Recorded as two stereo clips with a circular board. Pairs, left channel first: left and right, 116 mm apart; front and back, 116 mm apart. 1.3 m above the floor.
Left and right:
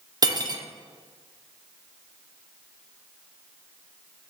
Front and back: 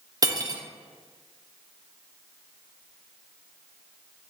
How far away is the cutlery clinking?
About 0.7 m.